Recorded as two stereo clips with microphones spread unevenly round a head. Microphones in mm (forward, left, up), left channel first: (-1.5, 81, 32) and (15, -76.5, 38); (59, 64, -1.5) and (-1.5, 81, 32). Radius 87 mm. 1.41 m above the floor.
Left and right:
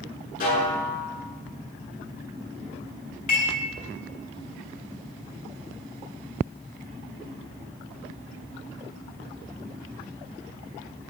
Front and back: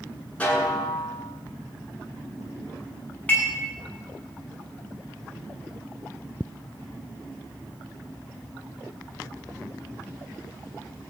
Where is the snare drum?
55° left, 9.5 m.